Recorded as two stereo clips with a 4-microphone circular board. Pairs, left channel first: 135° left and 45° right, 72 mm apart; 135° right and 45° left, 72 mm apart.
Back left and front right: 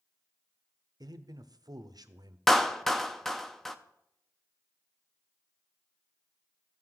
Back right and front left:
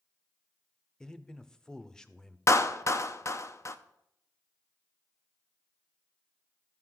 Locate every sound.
1.0 s a man speaking: 55° right, 0.6 m
2.5 s a clap: 140° right, 0.5 m